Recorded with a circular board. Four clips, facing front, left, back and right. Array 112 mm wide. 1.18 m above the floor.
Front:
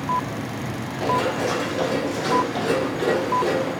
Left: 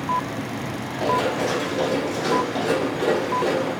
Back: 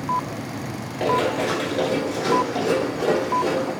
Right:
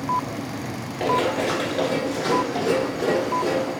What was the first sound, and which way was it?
Running footsteps, 130° right.